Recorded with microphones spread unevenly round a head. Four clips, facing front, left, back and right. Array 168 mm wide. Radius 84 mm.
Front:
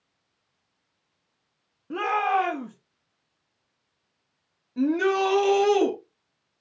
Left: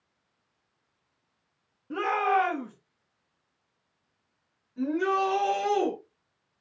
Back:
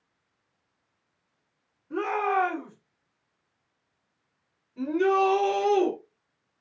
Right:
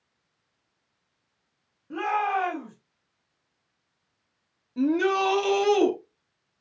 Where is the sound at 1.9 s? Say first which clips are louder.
Left 1 dB, front 2 dB; 15° left, 3 m.